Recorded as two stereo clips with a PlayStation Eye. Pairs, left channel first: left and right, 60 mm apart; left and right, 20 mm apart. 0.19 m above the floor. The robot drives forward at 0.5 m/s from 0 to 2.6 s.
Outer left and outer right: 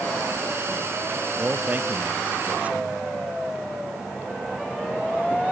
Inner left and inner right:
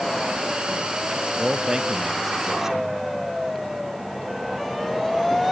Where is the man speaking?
30° right (ahead or behind); by 2.9 s 25° right (ahead or behind).